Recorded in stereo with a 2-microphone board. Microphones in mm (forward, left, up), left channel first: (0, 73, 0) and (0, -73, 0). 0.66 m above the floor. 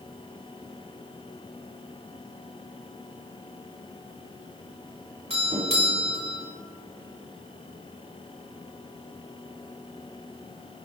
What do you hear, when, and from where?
5.3 s a doorbell: 45° right (ahead or behind), 3 m